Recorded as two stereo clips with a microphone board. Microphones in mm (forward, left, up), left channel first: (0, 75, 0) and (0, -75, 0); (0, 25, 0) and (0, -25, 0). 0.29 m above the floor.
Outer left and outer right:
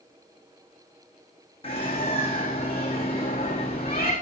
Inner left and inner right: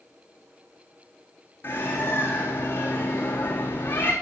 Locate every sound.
1.6 s a bird: 40° left (ahead or behind), 3.5 m